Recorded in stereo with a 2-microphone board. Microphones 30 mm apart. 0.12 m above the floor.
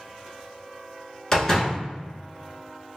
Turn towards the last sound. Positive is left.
turn(degrees=20)  # may be behind; listen again after turning